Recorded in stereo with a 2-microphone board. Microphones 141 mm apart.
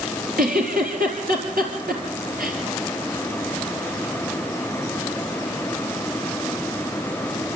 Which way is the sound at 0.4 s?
80° right.